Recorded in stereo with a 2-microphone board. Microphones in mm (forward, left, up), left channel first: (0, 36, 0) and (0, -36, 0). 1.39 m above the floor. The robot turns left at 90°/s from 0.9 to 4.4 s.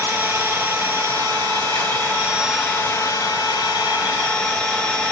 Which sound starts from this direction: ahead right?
An engine running, at 0.0 s.